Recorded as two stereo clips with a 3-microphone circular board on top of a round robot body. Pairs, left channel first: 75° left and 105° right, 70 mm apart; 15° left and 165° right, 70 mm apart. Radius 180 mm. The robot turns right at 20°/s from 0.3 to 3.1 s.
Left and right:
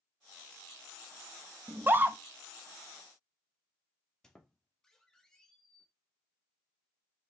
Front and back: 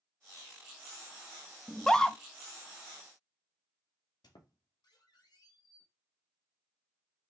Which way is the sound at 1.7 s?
65° right.